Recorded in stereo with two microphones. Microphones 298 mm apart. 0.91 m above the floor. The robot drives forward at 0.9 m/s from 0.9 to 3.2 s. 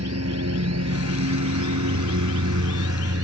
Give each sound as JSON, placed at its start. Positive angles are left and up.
{"t": 0.0, "sound": "a lawn mower", "side_deg": -55}